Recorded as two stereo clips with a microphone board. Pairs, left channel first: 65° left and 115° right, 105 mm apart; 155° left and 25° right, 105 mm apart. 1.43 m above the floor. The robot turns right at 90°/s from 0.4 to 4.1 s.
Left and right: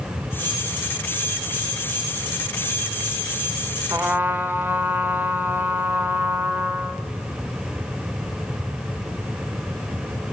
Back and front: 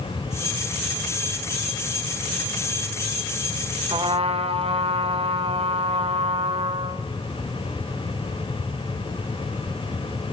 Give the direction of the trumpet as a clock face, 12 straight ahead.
2 o'clock.